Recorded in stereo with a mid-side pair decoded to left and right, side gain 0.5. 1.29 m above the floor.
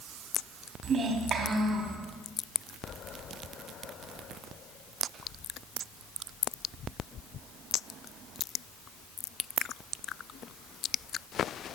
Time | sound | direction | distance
0.8 | a child speaking | 55° right | 2.5 m